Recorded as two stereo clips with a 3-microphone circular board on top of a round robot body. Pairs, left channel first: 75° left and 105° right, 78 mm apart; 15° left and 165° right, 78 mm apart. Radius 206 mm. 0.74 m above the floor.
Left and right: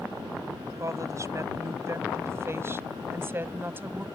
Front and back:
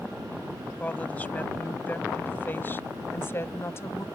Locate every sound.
0.8 s a woman speaking: 60° right; by 4.0 s 40° right